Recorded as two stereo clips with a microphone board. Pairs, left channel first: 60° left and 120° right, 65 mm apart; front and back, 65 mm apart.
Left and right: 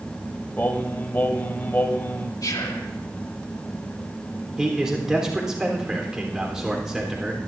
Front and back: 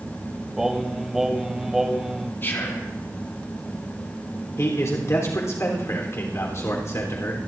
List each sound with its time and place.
0.6 s singing: 100° left, 0.9 m
2.4 s whispering: 55° left, 2 m
4.6 s a man speaking: 40° right, 3.5 m